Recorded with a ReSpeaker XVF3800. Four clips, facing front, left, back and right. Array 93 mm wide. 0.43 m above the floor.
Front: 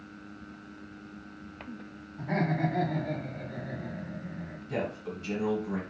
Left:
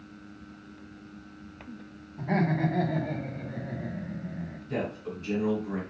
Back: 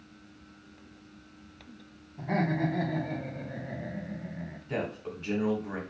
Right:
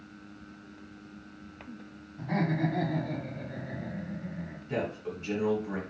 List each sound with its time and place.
2.2 s laughter: 100° left, 1.8 m; by 4.6 s 155° right, 1.5 m
4.7 s a man speaking: 155° right, 1.7 m